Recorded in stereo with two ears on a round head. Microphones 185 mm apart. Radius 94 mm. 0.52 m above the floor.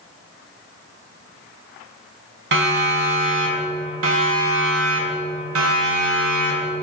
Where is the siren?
60° right (ahead or behind), 4.5 m; by 6.7 s 75° right (ahead or behind), 5.5 m.